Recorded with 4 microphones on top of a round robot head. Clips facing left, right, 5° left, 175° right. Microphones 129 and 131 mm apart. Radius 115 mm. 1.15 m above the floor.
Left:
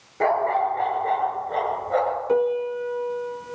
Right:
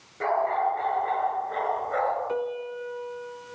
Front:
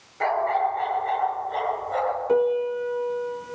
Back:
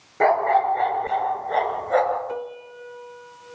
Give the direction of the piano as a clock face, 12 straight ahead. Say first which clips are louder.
Left 8 dB, front 12 dB; 11 o'clock.